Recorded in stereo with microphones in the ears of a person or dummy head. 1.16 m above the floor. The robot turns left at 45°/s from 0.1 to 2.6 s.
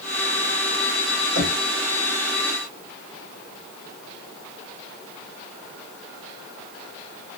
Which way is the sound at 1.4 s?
80° right.